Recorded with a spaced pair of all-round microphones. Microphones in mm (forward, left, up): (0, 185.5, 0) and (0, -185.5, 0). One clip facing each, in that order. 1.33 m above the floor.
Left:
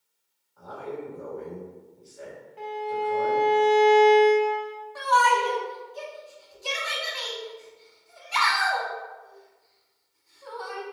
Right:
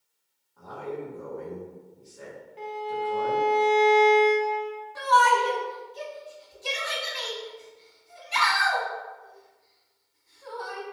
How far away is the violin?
About 0.8 m.